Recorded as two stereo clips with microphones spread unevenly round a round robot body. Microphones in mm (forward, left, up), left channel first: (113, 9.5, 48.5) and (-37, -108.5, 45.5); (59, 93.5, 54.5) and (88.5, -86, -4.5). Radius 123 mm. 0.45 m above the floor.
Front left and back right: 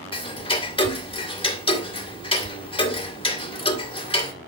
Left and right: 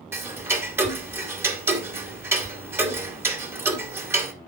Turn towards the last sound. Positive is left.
turn(degrees=-20)